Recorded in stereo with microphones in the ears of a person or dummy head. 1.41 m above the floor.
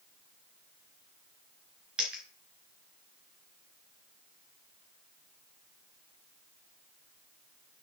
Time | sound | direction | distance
2.0 | a dropped coin | centre (ahead or behind) | 5.5 m